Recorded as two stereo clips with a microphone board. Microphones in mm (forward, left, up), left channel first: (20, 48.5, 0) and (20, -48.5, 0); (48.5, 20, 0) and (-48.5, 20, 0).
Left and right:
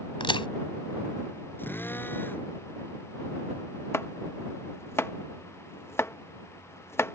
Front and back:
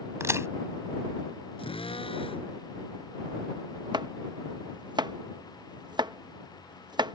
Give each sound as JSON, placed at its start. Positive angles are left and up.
{"t": 0.2, "sound": "a crack", "azimuth_deg": 120}
{"t": 1.6, "sound": "a drill", "azimuth_deg": 20}
{"t": 3.9, "sound": "chopping", "azimuth_deg": 150}